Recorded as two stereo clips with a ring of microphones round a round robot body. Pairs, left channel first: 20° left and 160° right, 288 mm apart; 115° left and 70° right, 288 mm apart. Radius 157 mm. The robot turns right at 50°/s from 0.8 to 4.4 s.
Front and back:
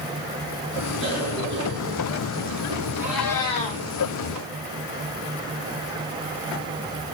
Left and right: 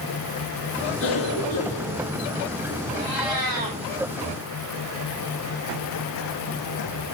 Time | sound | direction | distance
1.0 | a cough | 150° left | 8.5 m
3.0 | a cat meowing | 75° right | 6 m